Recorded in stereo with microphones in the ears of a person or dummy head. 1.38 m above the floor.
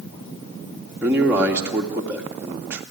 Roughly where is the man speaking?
Centre.